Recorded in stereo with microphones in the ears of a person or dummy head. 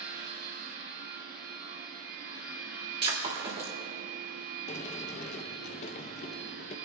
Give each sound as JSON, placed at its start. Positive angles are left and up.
{"t": 0.0, "sound": "a machine running", "side_deg": -50, "distance_m": 2.0}
{"t": 3.0, "sound": "breaking glass", "side_deg": -25, "distance_m": 2.5}
{"t": 4.7, "sound": "a sliding door", "side_deg": 35, "distance_m": 0.7}